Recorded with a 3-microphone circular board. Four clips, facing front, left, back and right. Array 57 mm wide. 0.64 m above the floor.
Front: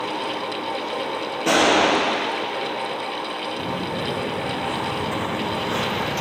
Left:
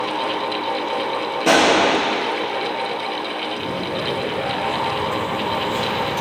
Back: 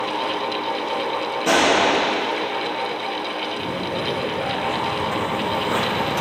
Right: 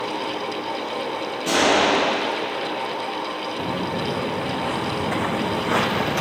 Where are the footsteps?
65° right, 2 m; by 6.2 s 115° right, 1.3 m.